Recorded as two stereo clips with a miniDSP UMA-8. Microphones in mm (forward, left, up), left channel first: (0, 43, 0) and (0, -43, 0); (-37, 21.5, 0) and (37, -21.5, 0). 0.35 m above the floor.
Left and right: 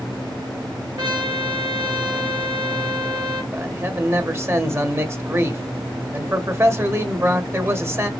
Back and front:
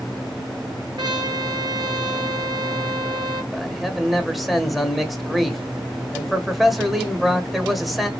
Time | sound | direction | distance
1.0 | a trumpet | 55° right | 2.0 m
3.5 | a man speaking | 120° right | 1.1 m